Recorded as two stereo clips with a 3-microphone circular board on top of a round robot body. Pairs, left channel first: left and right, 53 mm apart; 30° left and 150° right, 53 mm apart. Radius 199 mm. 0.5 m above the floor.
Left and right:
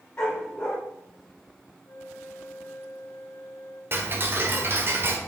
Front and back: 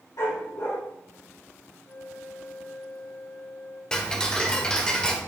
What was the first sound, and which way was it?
A dog barking, 20° left.